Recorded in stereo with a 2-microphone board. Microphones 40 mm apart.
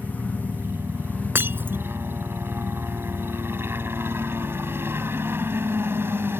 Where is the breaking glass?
70° right (ahead or behind).